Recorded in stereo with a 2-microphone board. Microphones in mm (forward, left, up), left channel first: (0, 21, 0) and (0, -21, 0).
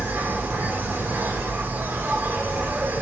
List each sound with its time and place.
0.0 s an insect: 60° right (ahead or behind), 1.5 m